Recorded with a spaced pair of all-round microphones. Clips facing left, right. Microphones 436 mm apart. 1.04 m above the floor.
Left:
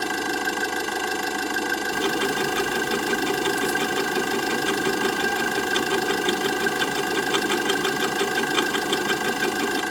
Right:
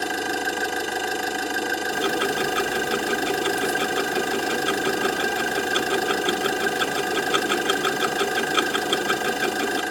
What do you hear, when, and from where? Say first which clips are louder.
0.0 s an engine running: even; 15° left (ahead or behind), 2.5 m
1.9 s ticking: even; 10° left (ahead or behind), 0.7 m